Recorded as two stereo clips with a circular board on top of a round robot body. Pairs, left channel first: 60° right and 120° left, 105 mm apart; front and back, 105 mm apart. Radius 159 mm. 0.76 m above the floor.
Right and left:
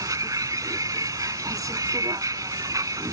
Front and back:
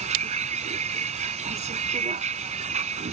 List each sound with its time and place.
0.0 s a vehicle: straight behind